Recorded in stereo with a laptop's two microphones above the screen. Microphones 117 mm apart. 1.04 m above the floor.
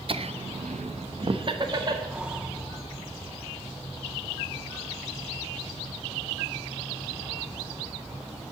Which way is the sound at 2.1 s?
10° right (ahead or behind).